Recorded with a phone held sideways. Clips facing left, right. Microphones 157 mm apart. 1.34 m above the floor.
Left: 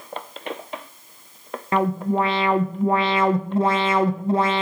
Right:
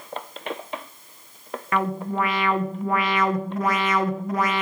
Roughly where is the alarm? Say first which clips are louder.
Left 4 dB; left.